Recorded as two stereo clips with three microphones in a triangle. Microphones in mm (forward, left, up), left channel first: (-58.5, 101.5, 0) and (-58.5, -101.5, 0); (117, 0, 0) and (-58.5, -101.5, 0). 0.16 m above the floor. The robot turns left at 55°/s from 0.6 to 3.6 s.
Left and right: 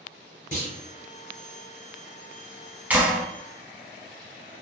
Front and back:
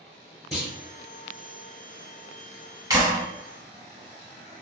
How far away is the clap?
About 0.9 m.